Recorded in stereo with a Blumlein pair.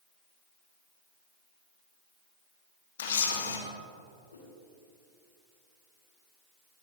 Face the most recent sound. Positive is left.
turn(degrees=70)